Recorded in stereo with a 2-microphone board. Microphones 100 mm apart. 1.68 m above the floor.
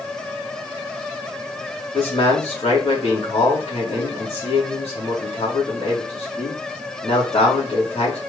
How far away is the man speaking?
About 2.5 m.